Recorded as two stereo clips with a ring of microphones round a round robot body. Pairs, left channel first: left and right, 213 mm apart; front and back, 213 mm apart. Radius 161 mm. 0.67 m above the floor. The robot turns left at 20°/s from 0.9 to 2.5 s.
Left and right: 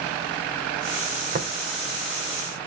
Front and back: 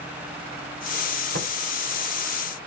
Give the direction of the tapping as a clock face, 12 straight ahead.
5 o'clock.